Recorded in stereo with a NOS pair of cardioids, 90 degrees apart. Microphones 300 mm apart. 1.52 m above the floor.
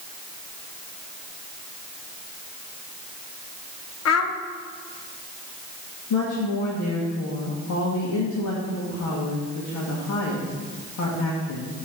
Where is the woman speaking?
60° left, 1.8 m.